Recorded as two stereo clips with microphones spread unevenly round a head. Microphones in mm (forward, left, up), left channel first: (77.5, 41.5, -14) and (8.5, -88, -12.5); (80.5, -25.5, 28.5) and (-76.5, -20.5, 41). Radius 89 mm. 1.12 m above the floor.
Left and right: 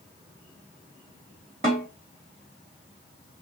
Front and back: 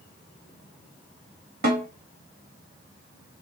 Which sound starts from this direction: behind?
A snare drum, at 1.6 s.